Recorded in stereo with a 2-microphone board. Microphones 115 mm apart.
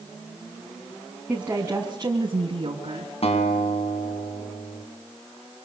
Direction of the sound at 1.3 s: 10° right (ahead or behind).